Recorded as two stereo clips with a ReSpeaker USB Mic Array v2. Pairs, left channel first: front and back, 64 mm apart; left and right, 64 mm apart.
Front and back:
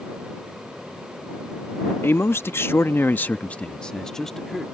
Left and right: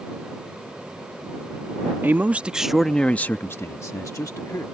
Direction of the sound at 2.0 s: 40° right.